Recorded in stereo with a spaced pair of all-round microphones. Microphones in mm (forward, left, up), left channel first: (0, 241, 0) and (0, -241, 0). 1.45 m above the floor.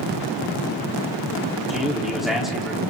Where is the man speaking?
Centre (ahead or behind), 4.5 m.